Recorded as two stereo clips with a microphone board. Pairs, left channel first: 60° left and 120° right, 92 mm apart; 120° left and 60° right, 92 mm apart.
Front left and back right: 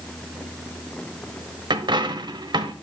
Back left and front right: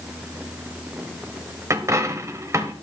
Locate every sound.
1.7 s a dropped coin: 110° right, 1.1 m